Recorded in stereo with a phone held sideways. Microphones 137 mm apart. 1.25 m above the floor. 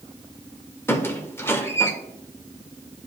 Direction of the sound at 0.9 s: 15° left (ahead or behind).